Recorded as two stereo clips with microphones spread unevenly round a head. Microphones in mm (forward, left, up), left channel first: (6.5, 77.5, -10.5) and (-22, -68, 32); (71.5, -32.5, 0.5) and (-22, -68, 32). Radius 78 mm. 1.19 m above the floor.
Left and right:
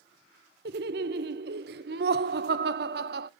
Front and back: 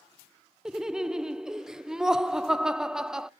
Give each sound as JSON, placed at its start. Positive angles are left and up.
{"t": 0.7, "sound": "laughter", "azimuth_deg": -75, "distance_m": 0.6}